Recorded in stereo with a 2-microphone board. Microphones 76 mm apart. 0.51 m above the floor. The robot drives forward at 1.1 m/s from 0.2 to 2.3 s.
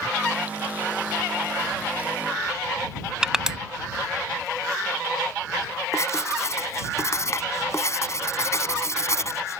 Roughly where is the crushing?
Centre.